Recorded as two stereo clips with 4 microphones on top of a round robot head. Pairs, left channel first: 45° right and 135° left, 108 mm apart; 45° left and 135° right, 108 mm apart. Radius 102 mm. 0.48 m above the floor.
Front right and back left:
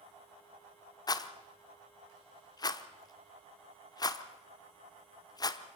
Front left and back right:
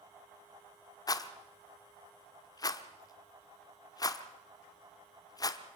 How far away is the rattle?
About 1.1 m.